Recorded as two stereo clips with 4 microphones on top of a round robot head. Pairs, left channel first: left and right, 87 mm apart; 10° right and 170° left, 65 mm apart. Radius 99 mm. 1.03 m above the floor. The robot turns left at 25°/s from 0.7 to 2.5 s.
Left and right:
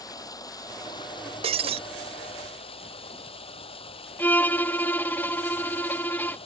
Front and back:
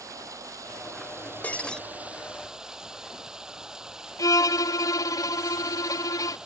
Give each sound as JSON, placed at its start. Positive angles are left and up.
{"t": 0.0, "sound": "running water", "azimuth_deg": 135}
{"t": 1.4, "sound": "breaking glass", "azimuth_deg": -80}
{"t": 4.2, "sound": "a violin", "azimuth_deg": 20}